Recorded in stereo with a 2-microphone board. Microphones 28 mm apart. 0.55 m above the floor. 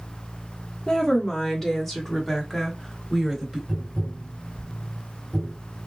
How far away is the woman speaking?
About 1.1 m.